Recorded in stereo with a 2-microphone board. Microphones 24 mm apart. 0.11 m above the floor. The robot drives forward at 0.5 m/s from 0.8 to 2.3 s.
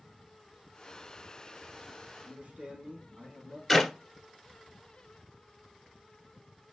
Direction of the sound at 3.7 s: Centre (ahead or behind).